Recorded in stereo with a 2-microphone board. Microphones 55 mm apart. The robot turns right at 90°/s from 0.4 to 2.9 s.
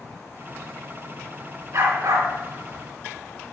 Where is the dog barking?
120° right, 3.5 m; by 2.3 s 70° right, 3.5 m.